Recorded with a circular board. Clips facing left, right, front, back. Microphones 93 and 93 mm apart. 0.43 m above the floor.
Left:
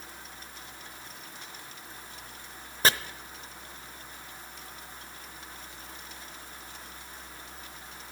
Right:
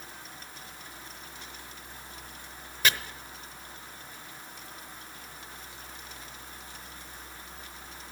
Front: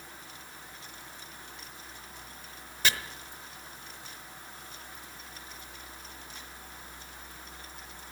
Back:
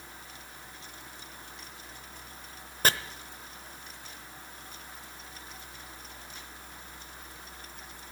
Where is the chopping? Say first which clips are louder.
Left 3 dB, back 3 dB; 140° left, 0.7 m.